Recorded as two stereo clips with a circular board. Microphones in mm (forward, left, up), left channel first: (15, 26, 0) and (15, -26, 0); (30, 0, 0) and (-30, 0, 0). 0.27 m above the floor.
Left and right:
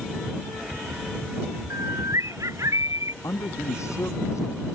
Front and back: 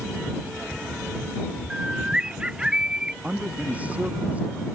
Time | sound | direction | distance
1.7 | a bird | 105° right | ?
3.2 | a man speaking | 115° left | ?